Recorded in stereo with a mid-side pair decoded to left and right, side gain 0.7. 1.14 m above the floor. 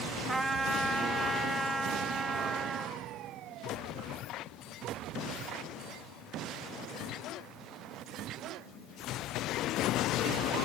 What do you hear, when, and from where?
0.3 s a trumpet: 10° right, 2 m